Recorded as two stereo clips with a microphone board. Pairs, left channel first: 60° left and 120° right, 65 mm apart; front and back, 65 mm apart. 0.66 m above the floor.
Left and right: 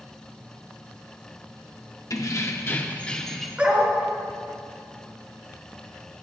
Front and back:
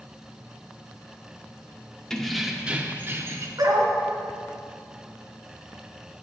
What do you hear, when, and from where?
2.1 s keys jangling: 80° left, 0.9 m; by 3.5 s 150° left, 1.0 m
3.6 s a dog barking: 170° left, 1.6 m